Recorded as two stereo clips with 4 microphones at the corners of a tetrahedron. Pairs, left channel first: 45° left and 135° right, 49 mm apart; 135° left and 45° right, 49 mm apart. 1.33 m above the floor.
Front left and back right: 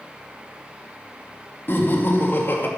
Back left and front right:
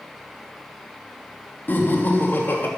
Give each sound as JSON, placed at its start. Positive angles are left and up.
{"t": 1.7, "sound": "laughter", "azimuth_deg": 90, "distance_m": 2.5}